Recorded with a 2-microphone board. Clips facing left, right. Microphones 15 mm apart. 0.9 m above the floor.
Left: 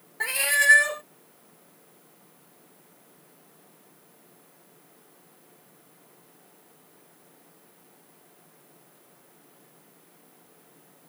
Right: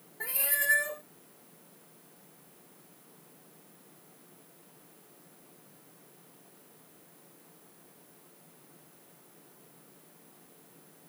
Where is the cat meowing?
55° left (ahead or behind).